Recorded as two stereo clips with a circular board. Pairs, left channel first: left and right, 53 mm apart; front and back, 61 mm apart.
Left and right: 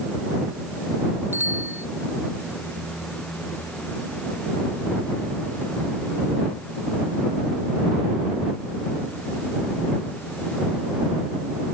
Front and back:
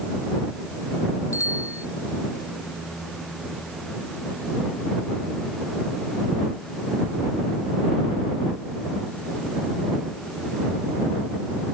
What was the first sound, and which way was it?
A bicycle bell, 40° right.